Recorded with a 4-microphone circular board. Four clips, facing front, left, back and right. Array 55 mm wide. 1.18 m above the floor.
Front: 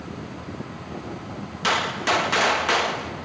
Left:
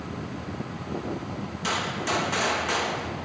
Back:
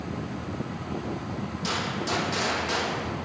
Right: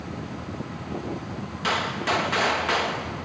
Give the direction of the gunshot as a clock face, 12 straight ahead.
1 o'clock.